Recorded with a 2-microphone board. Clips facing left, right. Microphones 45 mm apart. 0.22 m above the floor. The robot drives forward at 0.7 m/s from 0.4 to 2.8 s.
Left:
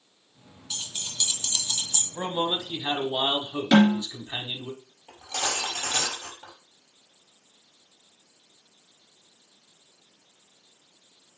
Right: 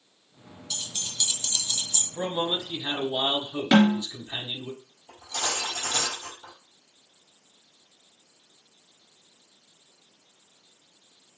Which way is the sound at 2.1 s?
30° left (ahead or behind).